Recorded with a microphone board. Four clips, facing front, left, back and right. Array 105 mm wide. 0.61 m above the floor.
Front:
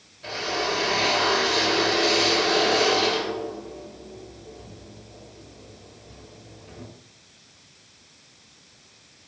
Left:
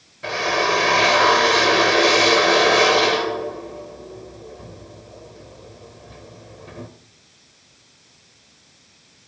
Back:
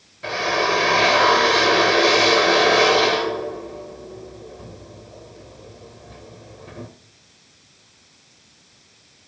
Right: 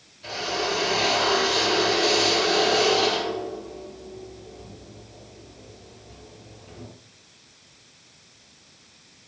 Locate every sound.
0.2 s a drill: 125° left, 3 m